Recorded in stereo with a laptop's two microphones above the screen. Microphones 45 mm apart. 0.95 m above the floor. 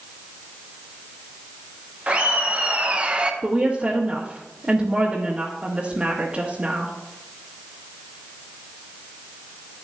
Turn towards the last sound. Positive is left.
turn(degrees=-25)  # may be behind; listen again after turning